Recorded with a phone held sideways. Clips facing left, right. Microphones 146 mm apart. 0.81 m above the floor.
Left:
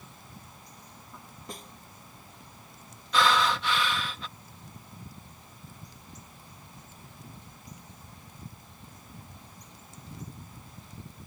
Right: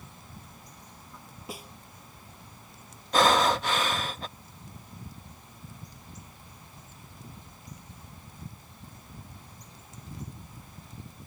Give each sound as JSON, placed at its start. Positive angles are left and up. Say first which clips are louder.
{"t": 1.5, "sound": "a snare drum", "louder": "right 2 dB", "side_deg": -5}
{"t": 3.1, "sound": "breathing", "louder": "right 3 dB", "side_deg": -45}